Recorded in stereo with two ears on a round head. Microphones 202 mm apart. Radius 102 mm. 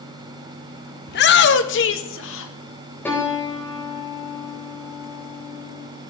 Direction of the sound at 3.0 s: 10° left (ahead or behind).